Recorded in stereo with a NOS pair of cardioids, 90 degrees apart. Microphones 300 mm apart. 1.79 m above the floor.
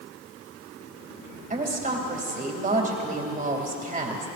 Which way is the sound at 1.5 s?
25° right.